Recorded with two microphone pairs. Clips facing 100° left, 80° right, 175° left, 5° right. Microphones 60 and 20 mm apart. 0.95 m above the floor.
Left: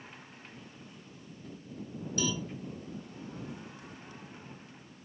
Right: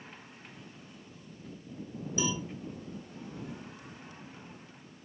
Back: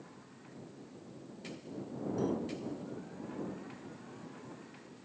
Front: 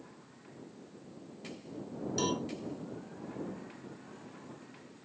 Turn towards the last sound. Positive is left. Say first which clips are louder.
# even, front 2 dB
turn(degrees=-10)